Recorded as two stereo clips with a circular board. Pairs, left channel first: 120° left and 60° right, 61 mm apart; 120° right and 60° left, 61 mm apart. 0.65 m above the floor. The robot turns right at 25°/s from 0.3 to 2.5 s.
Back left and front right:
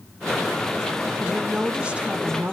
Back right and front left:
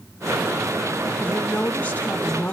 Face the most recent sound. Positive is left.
turn(degrees=-90)